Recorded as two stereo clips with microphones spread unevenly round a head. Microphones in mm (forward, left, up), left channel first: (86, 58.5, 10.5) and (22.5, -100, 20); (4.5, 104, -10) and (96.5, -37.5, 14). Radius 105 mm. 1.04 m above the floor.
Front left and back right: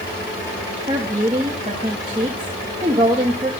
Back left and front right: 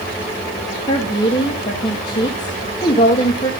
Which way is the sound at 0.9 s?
Straight behind.